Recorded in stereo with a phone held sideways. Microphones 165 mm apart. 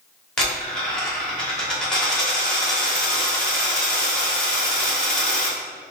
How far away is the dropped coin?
About 1.0 m.